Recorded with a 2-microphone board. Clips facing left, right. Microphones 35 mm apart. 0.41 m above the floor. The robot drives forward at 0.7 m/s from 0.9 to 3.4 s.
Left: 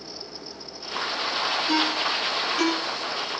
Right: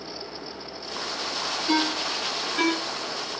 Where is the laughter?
I don't hear laughter.